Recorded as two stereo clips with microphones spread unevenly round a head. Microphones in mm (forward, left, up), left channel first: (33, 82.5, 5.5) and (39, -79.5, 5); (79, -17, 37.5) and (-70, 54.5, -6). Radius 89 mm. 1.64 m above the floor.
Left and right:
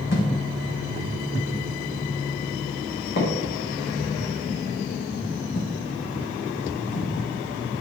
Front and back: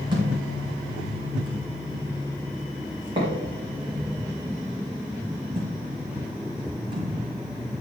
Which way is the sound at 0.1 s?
85° left.